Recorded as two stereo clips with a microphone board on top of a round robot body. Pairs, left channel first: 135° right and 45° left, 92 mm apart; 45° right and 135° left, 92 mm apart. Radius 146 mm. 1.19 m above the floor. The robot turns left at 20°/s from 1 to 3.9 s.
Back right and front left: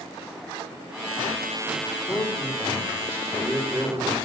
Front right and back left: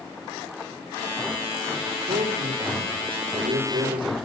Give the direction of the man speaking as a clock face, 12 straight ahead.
8 o'clock.